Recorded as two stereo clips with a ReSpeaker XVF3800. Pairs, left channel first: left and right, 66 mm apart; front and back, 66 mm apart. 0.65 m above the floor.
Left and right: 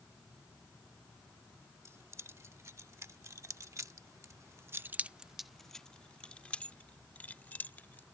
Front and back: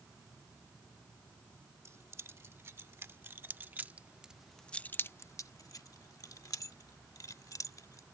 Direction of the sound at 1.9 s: 135° right.